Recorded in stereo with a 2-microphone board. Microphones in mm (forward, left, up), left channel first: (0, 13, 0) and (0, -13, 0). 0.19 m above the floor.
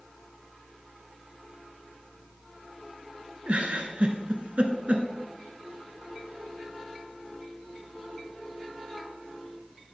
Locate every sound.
3.5 s a giggle: 60° right (ahead or behind), 1.0 m